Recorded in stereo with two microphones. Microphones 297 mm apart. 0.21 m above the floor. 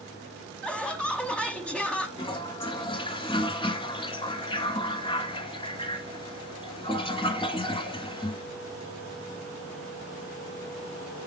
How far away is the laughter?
About 1.1 m.